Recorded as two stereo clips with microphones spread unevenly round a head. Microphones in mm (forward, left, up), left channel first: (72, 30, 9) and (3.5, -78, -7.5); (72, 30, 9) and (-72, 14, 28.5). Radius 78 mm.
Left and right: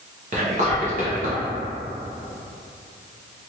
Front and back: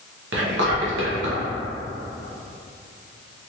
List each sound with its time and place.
0.3 s whispering: 170° right, 0.8 m